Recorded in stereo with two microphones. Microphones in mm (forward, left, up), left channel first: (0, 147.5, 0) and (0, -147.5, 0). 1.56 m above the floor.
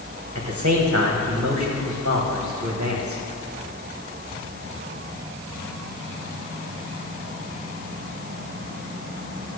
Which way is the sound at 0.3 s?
50° right (ahead or behind).